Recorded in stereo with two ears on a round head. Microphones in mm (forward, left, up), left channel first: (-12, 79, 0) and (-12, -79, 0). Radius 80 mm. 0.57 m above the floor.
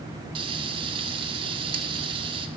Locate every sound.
0.3 s frying: 30° right (ahead or behind), 0.7 m